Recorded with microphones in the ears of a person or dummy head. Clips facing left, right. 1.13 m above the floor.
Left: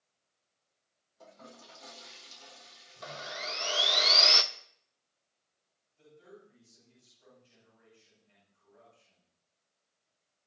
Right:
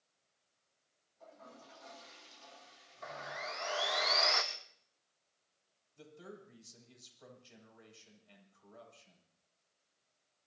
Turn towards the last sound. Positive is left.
turn(degrees=-80)